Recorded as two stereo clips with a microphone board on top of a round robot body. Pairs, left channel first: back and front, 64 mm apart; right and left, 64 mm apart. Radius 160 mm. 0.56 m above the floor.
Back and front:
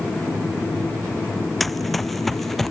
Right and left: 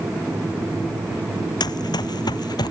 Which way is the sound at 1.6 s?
90° right.